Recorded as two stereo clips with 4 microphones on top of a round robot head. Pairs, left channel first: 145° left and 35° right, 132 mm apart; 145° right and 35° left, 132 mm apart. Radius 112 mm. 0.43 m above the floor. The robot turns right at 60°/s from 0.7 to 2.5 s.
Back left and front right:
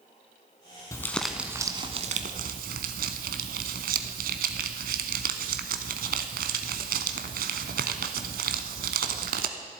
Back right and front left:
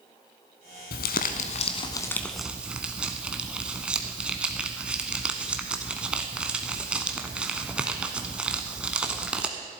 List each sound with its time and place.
0.9 s crumpling: 145° right, 0.6 m; by 9.5 s 50° right, 0.6 m